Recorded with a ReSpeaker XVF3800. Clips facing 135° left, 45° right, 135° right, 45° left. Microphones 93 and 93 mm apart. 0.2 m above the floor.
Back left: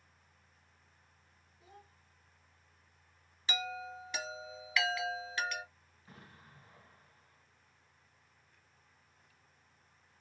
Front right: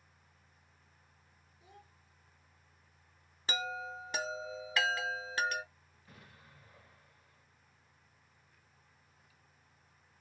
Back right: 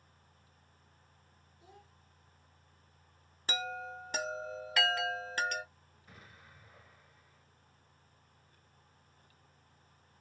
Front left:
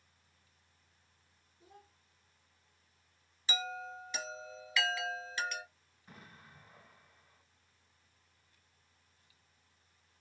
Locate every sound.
1.6 s a child speaking: 85° left, 1.3 m
3.5 s a chime: 100° right, 0.5 m
6.1 s an explosion: 90° left, 2.0 m